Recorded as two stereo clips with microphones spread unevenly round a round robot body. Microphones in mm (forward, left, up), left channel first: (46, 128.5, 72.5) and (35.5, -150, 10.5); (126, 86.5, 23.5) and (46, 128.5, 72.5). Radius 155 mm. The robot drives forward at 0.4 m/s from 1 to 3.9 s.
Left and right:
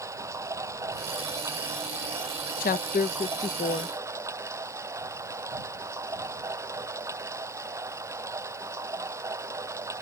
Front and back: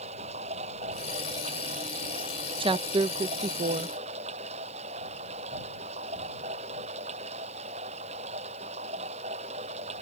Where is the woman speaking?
135° left; by 4.0 s 165° left.